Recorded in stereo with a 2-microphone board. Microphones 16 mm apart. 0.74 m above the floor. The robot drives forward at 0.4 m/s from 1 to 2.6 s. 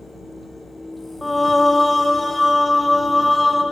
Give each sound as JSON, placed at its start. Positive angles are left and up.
{"t": 1.2, "sound": "singing", "side_deg": 10, "distance_m": 0.5}